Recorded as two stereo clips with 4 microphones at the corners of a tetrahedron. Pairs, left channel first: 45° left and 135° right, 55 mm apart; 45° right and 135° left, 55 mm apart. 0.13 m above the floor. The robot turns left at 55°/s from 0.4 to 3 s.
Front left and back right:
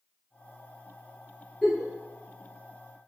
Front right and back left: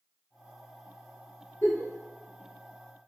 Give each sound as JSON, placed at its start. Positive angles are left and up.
{"t": 1.6, "sound": "a giggle", "azimuth_deg": -35, "distance_m": 1.5}